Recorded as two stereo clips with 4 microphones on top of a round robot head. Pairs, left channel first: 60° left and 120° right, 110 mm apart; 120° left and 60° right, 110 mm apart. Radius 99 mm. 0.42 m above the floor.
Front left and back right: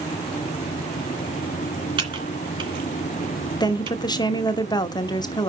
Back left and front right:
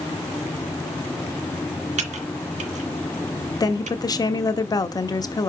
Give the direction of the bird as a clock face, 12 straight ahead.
No bird in this recording.